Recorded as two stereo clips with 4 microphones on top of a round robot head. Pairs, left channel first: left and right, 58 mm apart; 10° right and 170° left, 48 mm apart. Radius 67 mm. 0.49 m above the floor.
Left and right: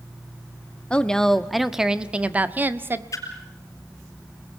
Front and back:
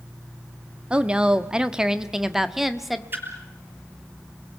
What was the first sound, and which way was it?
A woman speaking, 135° left.